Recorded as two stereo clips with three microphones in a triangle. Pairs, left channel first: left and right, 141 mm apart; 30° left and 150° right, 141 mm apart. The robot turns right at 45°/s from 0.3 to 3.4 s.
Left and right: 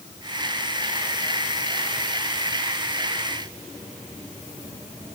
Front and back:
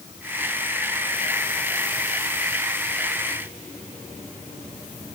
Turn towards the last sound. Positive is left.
No sound to turn to.